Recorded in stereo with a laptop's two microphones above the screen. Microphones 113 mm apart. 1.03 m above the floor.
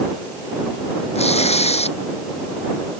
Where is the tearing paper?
65° left (ahead or behind).